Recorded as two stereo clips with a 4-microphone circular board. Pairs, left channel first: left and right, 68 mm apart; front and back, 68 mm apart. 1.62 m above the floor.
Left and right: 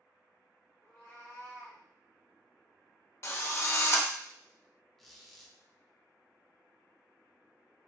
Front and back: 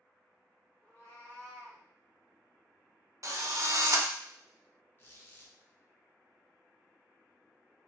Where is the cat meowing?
65° left, 1.7 m; by 1.8 s 60° left, 3 m.